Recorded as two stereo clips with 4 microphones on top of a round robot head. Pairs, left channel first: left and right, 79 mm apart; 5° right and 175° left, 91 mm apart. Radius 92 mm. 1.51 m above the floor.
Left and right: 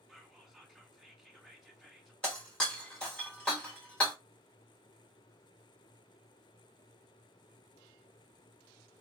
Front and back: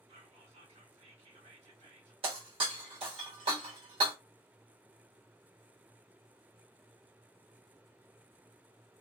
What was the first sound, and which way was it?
Whispering, straight behind.